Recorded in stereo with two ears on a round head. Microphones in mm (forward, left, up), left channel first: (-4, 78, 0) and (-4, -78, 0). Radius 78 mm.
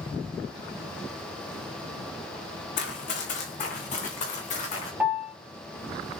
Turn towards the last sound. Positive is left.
turn(degrees=-10)  # may be behind; listen again after turning